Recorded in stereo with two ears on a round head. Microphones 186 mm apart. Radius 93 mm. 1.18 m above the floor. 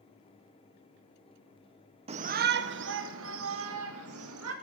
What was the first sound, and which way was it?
A shout, 30° right (ahead or behind).